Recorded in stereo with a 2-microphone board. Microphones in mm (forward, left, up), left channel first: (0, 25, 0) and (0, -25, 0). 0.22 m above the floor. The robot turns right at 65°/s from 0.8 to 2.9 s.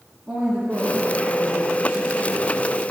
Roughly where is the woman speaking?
Behind.